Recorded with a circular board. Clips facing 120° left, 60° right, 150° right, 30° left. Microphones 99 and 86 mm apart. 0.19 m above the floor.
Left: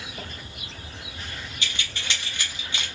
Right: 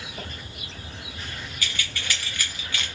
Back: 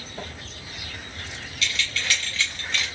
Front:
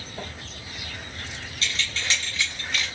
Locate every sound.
1.6 s keys jangling: 65° left, 1.3 m; by 2.9 s 120° left, 1.0 m